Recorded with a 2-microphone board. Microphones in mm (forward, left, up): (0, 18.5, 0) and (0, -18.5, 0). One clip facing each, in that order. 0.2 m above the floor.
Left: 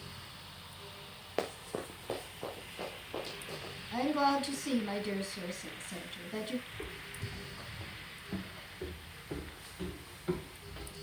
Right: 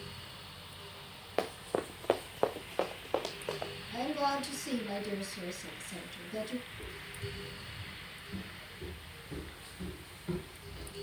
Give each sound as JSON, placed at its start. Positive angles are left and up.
{"t": 1.4, "sound": "running footsteps", "side_deg": -5, "distance_m": 0.9}
{"t": 3.9, "sound": "a woman speaking", "side_deg": 45, "distance_m": 1.9}
{"t": 6.7, "sound": "footsteps", "side_deg": 65, "distance_m": 1.9}